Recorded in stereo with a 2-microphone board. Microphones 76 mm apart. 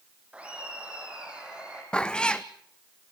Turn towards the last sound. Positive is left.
turn(degrees=15)  # may be behind; listen again after turning